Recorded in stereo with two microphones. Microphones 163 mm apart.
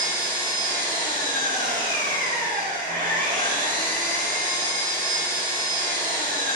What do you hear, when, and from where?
0.0 s an engine running: 60° right (ahead or behind), 4.5 m